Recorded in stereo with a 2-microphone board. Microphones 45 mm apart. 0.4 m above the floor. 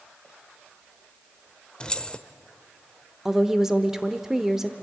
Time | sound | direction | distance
1.8 | keys jangling | 20° left (ahead or behind) | 0.6 m
3.2 | a woman speaking | 10° right (ahead or behind) | 0.8 m